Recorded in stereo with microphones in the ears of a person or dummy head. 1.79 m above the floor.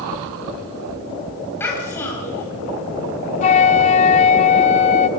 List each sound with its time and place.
1.6 s a child speaking: 15° left (ahead or behind), 7.5 m
3.4 s a flute: 40° left (ahead or behind), 1.4 m